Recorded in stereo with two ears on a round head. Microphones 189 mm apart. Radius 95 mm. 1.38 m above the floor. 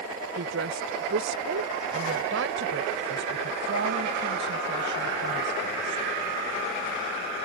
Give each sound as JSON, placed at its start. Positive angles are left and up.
{"t": 0.4, "sound": "a woman speaking", "side_deg": -65}